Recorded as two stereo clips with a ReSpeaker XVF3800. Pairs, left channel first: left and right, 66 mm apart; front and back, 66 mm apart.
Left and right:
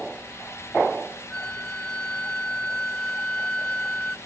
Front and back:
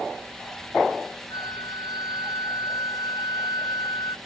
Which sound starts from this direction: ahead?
A flute, at 1.3 s.